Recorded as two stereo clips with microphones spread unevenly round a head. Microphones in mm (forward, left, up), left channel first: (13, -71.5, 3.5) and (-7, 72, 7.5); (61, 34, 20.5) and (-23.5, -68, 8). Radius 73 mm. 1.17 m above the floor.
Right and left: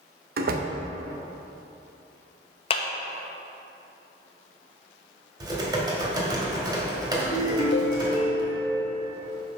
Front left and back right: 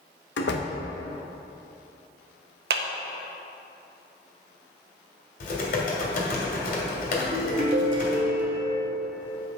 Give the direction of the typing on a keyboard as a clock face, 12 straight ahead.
11 o'clock.